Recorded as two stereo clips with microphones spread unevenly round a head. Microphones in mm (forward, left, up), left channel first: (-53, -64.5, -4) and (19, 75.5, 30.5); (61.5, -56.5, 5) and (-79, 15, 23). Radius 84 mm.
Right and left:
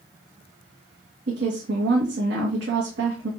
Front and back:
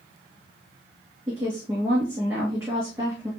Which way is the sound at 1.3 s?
75° left.